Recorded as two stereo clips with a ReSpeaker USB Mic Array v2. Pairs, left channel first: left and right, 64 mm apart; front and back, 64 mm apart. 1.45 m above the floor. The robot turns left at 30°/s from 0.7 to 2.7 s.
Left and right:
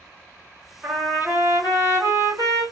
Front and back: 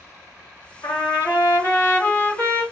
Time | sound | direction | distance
0.8 | a trumpet | 25° right | 3 m